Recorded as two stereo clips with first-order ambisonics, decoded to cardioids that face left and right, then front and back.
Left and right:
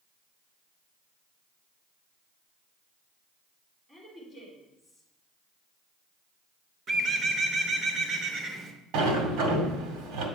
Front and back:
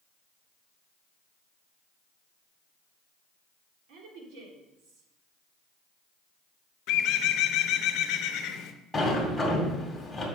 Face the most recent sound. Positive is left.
turn(degrees=-85)